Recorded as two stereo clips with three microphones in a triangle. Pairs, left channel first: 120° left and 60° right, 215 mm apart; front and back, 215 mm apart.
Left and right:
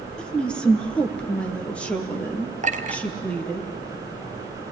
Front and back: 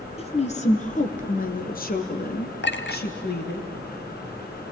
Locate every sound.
0.2 s a woman speaking: 35° left, 1.3 m
2.6 s a clink: 15° right, 1.2 m